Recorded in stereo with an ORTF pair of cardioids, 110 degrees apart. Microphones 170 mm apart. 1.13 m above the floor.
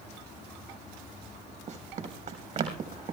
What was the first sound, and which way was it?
Running footsteps, 50° right.